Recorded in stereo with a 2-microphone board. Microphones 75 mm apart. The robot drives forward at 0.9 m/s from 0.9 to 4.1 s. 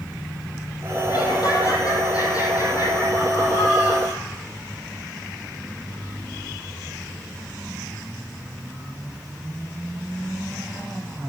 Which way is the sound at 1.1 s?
60° left (ahead or behind).